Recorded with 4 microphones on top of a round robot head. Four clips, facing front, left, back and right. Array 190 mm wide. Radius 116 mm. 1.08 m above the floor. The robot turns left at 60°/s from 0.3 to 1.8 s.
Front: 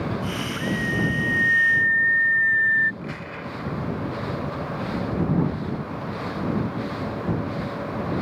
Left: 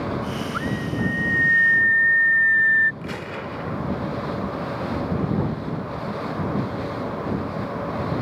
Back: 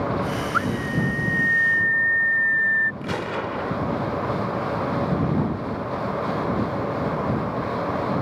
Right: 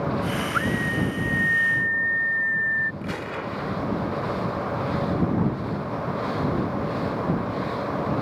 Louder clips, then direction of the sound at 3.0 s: Right 1 dB, back 7 dB; 175° left.